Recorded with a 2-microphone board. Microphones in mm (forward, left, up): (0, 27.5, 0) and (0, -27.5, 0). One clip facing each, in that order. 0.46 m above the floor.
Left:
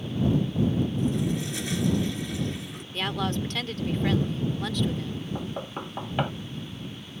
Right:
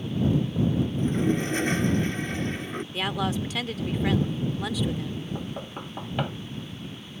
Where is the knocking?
10° left (ahead or behind).